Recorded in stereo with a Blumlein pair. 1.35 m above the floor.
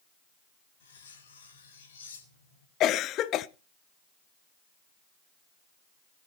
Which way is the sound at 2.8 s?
35° left.